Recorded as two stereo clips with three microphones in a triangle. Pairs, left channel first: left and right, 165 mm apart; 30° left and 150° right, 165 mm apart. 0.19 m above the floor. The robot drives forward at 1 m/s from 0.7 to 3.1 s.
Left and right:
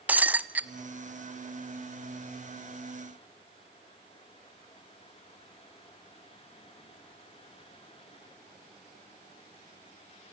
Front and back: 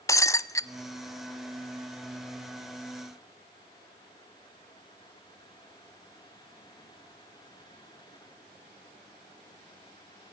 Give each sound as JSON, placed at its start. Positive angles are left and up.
{"t": 0.1, "sound": "breaking glass", "azimuth_deg": -20, "distance_m": 0.6}